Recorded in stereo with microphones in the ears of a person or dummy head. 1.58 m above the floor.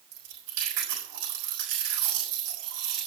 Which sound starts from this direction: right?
Chewing, at 0.1 s.